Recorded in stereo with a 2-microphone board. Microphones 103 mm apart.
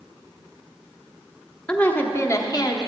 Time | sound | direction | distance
1.7 | a woman speaking | 15° left (ahead or behind) | 1.1 m